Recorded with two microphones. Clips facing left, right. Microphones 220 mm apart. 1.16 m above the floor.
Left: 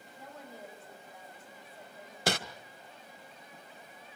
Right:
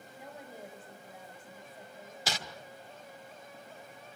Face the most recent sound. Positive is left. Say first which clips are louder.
# left 8 dB
turn(degrees=55)  # may be behind; listen again after turning